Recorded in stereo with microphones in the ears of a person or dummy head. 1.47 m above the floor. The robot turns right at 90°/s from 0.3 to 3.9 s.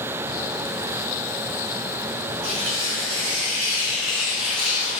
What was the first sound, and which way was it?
Tearing paper, 130° right.